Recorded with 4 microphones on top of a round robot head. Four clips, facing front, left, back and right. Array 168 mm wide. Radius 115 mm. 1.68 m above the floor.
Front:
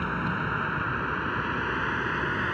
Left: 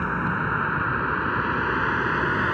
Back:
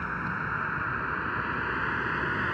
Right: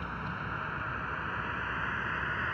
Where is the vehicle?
70° left; by 2.5 s 85° left.